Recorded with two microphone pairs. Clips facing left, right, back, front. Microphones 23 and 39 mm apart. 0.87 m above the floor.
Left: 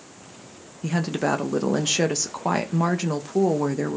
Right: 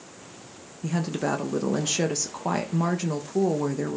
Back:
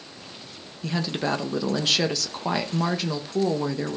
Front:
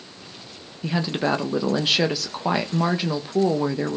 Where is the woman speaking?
50° left, 0.5 m.